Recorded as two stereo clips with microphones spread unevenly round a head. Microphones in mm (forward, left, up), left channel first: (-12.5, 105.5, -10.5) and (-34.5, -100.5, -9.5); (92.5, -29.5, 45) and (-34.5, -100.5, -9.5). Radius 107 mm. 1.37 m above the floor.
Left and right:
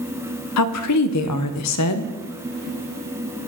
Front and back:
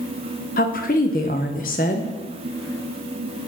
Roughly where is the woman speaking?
Left.